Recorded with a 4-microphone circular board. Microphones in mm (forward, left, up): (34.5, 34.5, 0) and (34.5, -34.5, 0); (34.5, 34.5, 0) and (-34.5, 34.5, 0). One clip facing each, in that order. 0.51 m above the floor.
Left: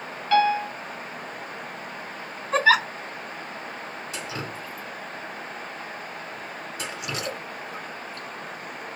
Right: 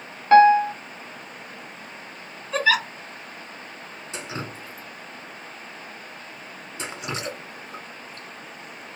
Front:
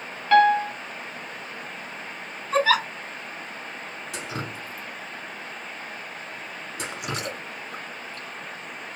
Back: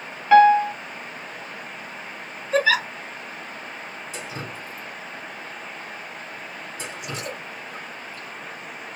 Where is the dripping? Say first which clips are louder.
Right 2 dB, front 2 dB; 25° right, 1.9 m.